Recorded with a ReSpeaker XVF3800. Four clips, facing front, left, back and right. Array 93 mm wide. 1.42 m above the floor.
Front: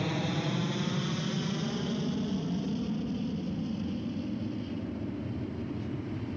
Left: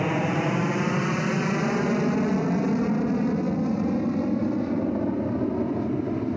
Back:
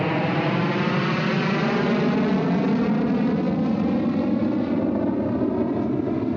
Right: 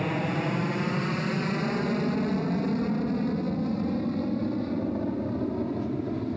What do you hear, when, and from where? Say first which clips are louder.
0.0 s an aircraft: left 4 dB, back 10 dB; 155° left; by 6.4 s 165° left